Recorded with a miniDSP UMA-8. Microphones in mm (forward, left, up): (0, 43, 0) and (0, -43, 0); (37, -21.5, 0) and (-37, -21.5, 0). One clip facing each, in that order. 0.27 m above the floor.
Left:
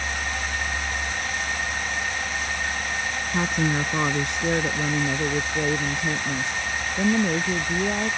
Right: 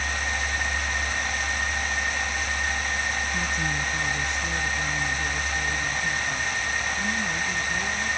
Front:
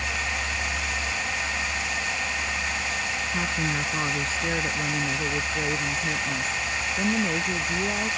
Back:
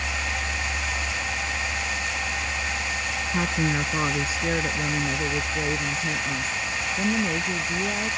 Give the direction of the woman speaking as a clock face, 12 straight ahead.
8 o'clock.